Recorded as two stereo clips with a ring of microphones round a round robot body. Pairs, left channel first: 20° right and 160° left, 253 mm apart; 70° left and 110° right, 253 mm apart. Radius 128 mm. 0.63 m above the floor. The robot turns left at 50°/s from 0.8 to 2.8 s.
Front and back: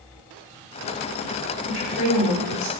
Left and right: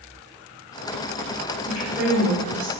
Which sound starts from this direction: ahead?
A woman speaking, at 1.6 s.